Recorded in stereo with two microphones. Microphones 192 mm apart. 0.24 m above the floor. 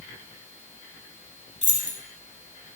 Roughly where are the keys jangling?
Left.